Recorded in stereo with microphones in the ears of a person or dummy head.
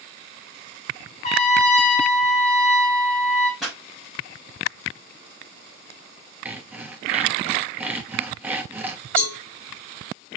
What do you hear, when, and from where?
1.2 s a trumpet: 40° left (ahead or behind), 1.2 m
3.6 s a pop: 5° left (ahead or behind), 4 m
6.5 s sawing: 10° right (ahead or behind), 1.0 m
9.2 s a cowbell: 15° left (ahead or behind), 4 m